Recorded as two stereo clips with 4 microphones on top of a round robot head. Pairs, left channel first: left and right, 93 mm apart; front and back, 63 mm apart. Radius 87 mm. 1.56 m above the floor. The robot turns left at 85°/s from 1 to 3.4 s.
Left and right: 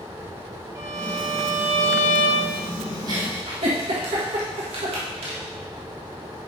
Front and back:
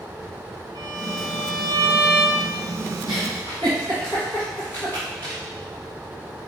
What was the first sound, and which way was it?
A violin, 150° right.